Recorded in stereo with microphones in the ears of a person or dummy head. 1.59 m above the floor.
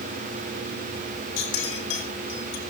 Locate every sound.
1.4 s a clink: 70° left (ahead or behind), 5.5 m